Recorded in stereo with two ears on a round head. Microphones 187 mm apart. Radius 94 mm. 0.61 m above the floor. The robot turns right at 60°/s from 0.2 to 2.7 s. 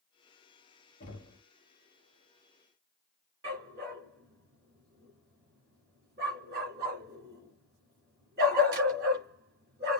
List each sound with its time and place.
1.0 s knocking: 40° left (ahead or behind), 2 m; by 1.4 s 20° left (ahead or behind), 2 m
3.4 s a dog barking: 55° right (ahead or behind), 2 m